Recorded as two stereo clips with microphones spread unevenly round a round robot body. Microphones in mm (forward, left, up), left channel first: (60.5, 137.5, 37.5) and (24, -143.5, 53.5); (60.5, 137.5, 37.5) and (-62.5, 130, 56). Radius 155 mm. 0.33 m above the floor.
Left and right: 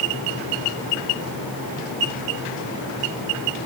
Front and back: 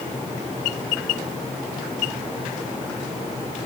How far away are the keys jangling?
No keys jangling in this recording.